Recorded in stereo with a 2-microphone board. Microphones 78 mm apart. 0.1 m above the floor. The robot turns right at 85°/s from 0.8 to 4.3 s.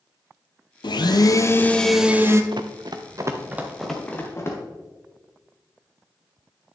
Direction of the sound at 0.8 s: 90° left.